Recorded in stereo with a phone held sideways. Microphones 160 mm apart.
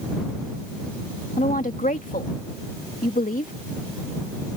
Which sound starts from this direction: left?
A woman speaking, at 1.4 s.